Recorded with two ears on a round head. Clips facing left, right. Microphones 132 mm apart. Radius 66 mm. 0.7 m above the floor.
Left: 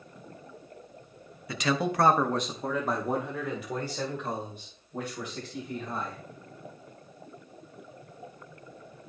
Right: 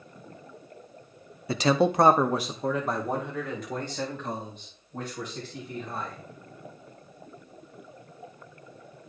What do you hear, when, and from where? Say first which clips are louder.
1.5 s a man speaking: right 6 dB; 30° right (ahead or behind), 0.6 m; by 6.2 s 10° left (ahead or behind), 4.5 m